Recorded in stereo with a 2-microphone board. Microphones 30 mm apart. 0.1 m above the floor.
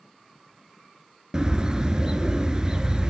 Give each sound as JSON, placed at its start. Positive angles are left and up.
{"t": 1.3, "sound": "a bird", "side_deg": -25, "distance_m": 0.7}